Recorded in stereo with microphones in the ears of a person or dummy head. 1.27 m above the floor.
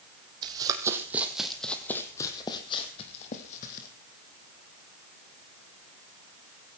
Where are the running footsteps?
25° right (ahead or behind), 3 m; by 3.9 s 50° left (ahead or behind), 3.5 m.